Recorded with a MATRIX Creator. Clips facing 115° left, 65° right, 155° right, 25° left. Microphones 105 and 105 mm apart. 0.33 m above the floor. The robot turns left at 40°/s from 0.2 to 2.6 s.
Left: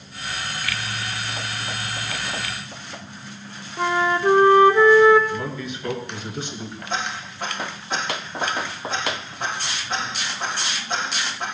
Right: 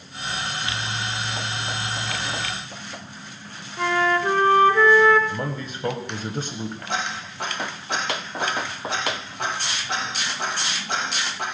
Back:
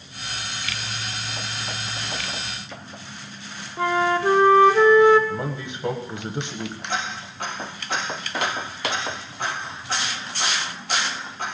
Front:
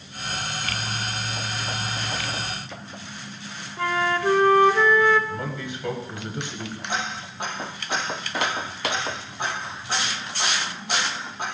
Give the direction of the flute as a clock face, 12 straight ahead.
7 o'clock.